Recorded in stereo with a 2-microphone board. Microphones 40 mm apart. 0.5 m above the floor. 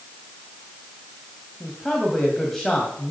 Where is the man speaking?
5° left (ahead or behind), 2.5 m.